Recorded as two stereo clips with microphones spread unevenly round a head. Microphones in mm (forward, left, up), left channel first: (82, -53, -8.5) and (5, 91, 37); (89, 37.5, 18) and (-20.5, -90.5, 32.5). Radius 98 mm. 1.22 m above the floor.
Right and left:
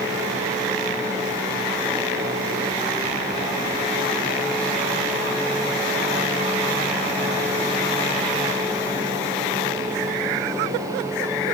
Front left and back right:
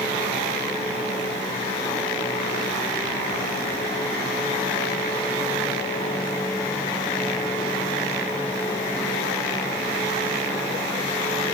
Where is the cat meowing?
No cat meowing in this recording.